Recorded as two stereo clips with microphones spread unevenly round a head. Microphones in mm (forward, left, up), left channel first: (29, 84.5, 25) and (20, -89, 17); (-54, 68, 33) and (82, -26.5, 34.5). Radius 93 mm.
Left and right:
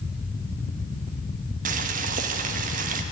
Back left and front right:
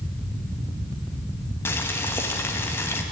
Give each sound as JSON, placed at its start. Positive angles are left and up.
{"t": 1.6, "sound": "boiling", "azimuth_deg": -135, "distance_m": 1.0}